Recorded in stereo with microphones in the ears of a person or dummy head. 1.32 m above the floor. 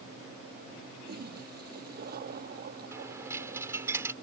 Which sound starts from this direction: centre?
A dropped coin, at 2.9 s.